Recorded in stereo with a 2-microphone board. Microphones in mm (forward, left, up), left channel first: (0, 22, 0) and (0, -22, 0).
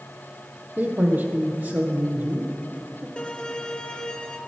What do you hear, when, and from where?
0.8 s a man speaking: 45° right (ahead or behind), 3 m
3.2 s a violin: 20° left (ahead or behind), 1.6 m